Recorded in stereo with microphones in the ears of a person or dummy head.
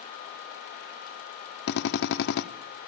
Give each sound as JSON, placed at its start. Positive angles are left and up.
{"t": 1.7, "sound": "a drill", "side_deg": 65, "distance_m": 0.6}